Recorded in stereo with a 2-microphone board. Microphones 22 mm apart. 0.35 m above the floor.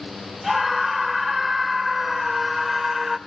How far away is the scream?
About 1.3 m.